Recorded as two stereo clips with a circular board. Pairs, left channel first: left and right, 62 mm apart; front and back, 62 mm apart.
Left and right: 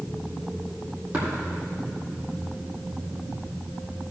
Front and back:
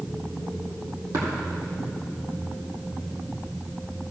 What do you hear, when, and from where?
1.1 s tapping: 160° right, 3.5 m